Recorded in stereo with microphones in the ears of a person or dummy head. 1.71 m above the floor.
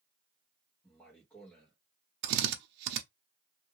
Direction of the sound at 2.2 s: 70° right (ahead or behind).